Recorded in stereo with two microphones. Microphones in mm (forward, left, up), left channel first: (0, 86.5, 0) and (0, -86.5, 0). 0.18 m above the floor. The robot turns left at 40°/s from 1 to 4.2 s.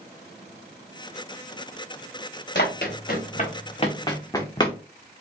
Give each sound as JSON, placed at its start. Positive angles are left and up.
{"t": 2.5, "sound": "running footsteps", "side_deg": 80, "distance_m": 2.0}